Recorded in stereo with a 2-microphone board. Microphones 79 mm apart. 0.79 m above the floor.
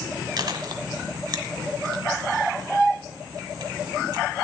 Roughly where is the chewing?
Right.